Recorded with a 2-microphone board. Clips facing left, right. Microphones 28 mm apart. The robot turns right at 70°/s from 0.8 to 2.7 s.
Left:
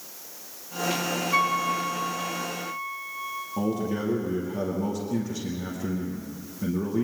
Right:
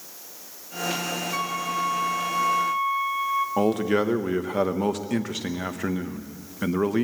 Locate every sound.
1.3 s a flute: 155° left, 1.3 m; by 3.5 s 110° right, 1.3 m
3.6 s a man speaking: 85° right, 1.1 m